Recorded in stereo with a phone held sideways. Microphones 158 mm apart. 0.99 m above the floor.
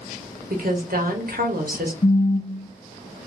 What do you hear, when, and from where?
0.5 s a woman speaking: 70° right (ahead or behind), 0.8 m
2.0 s a phone buzzing: 40° left (ahead or behind), 0.6 m